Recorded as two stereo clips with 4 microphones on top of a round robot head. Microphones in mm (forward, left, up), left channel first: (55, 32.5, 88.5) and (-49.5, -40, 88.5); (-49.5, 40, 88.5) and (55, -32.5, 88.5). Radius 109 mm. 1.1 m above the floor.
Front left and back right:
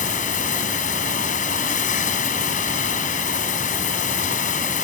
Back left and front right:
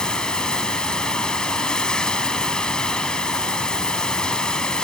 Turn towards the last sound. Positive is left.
turn(degrees=60)